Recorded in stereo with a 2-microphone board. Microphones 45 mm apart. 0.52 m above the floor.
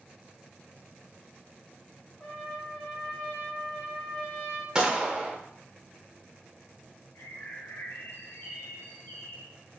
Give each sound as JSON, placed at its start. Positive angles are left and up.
{"t": 2.2, "sound": "a trumpet", "side_deg": 10, "distance_m": 1.7}
{"t": 4.8, "sound": "a gunshot", "side_deg": -15, "distance_m": 0.8}
{"t": 7.2, "sound": "a bird", "side_deg": 60, "distance_m": 0.6}